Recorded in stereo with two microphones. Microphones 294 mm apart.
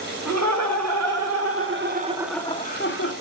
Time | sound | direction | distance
0.2 | laughter | 65° right (ahead or behind) | 3.5 m